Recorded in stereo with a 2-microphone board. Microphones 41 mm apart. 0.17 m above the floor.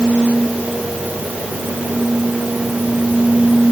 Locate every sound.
Only background noise.